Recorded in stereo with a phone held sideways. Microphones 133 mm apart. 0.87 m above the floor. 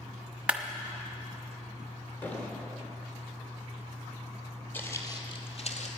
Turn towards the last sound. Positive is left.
turn(degrees=60)  # may be behind; listen again after turning